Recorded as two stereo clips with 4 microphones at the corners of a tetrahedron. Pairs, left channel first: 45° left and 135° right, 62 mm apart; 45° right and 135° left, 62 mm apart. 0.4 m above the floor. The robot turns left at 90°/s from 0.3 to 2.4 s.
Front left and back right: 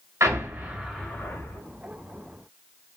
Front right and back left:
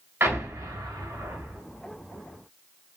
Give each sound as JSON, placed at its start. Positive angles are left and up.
{"t": 0.2, "sound": "an explosion", "azimuth_deg": 180, "distance_m": 1.4}